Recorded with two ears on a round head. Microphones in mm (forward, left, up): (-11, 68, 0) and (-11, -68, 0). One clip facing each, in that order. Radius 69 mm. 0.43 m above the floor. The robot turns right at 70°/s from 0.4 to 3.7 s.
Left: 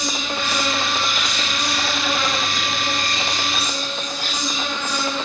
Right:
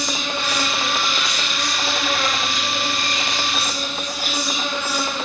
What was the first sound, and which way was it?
An insect, 45° right.